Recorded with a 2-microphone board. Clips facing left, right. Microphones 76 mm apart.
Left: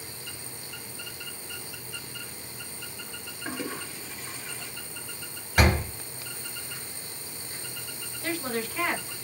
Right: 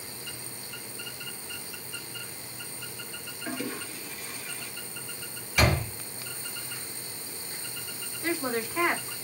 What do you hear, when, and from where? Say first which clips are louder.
3.5 s a toilet flushing: even; 30° left (ahead or behind), 1.1 m
5.6 s a door slam: left 2 dB; 50° left (ahead or behind), 2 m
8.2 s a woman speaking: right 1 dB; 25° right (ahead or behind), 1.2 m